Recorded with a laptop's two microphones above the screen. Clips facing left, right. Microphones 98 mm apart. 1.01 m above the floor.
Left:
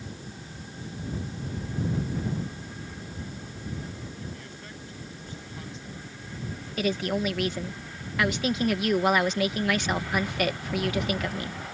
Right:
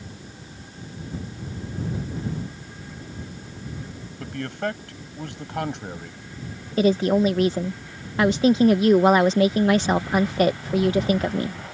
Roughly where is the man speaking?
Right.